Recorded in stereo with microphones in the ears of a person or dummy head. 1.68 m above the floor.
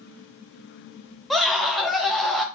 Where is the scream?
5° left (ahead or behind), 0.6 m.